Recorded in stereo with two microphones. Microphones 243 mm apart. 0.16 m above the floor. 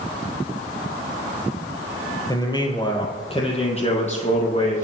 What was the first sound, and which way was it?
A man speaking, 15° left (ahead or behind).